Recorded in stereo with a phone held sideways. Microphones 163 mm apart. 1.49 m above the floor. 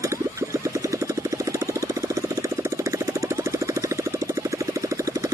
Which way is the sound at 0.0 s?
20° right (ahead or behind).